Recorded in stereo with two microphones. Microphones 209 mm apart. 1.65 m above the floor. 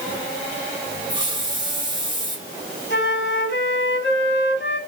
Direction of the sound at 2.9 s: 60° left (ahead or behind).